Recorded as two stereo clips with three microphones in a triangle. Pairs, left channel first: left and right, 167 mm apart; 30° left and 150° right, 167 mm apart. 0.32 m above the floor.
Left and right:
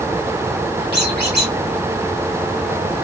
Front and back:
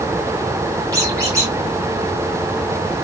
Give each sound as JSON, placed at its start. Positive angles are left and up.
{"t": 0.9, "sound": "a squeak", "azimuth_deg": -80, "distance_m": 5.5}